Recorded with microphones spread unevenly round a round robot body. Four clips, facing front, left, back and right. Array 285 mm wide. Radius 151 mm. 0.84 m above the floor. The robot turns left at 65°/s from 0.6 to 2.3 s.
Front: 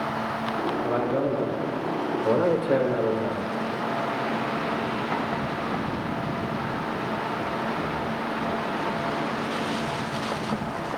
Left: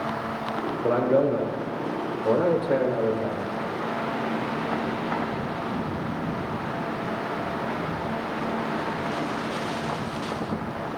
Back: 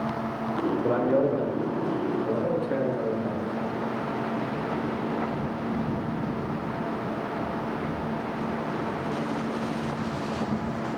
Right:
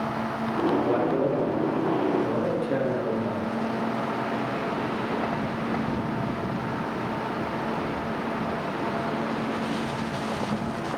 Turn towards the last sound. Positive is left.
turn(degrees=35)